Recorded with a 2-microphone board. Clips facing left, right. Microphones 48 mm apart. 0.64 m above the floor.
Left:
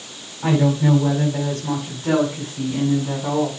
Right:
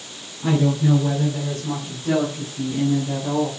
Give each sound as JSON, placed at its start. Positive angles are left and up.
{"t": 0.4, "sound": "a woman speaking", "side_deg": 75, "distance_m": 4.0}